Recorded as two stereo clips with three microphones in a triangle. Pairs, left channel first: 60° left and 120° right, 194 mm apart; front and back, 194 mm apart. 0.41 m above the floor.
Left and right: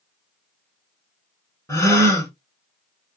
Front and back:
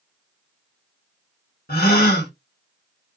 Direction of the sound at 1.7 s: 10° right.